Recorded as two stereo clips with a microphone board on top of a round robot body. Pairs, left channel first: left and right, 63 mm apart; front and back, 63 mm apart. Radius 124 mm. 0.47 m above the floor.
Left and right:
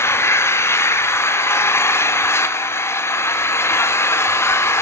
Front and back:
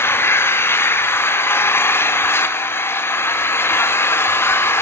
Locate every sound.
0.0 s an engine running: 45° left, 1.1 m